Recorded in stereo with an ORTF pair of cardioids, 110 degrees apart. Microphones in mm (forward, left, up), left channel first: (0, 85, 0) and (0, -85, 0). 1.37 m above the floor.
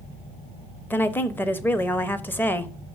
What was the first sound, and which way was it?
A woman speaking, 10° left.